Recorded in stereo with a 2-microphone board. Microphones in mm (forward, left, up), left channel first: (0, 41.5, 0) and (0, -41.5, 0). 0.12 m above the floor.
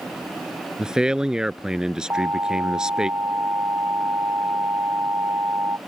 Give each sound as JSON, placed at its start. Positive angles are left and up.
{"t": 0.8, "sound": "a man speaking", "side_deg": -10}
{"t": 2.1, "sound": "an alarm", "side_deg": -35}